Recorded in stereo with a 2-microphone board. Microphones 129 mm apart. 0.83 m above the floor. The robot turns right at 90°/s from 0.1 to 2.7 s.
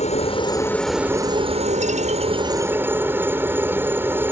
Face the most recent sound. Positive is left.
turn(degrees=-20)